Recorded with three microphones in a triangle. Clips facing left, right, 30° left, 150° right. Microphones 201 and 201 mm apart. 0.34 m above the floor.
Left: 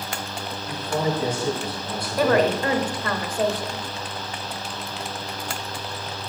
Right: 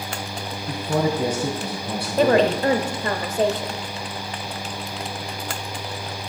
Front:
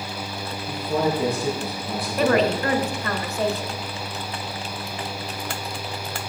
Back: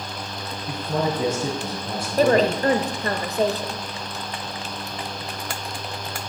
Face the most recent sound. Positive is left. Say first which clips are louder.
# right 2 dB, back 2 dB
turn(degrees=-135)